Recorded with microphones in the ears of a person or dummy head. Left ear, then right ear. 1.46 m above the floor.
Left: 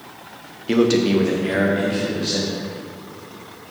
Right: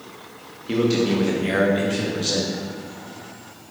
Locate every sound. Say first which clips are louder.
0.7 s a man speaking: left 4 dB; 40° left (ahead or behind), 0.6 m; by 2.6 s 45° right (ahead or behind), 1.1 m